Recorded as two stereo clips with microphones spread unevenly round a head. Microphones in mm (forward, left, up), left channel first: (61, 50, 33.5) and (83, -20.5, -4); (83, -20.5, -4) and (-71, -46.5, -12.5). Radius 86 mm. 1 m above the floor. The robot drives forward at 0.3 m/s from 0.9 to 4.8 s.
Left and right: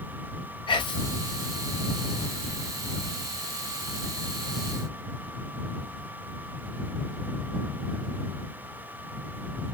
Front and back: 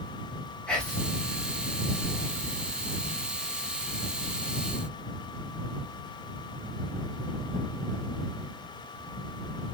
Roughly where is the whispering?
Left.